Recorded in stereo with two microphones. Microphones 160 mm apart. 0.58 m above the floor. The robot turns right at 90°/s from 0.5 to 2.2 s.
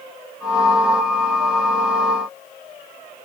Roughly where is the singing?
I don't hear singing.